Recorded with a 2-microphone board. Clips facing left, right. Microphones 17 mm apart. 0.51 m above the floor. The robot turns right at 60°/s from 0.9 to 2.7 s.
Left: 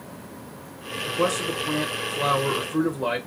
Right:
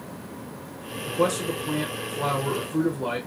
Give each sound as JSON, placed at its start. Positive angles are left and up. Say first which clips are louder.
{"t": 1.1, "sound": "a man speaking", "louder": "even", "azimuth_deg": 10, "distance_m": 0.9}